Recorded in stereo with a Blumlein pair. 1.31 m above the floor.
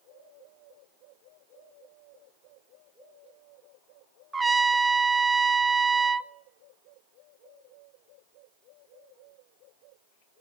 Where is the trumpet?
10° right, 0.7 m.